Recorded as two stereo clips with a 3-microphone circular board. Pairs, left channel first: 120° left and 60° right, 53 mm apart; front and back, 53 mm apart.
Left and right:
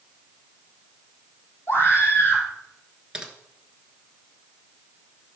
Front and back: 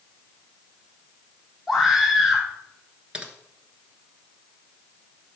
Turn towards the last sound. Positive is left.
turn(degrees=-125)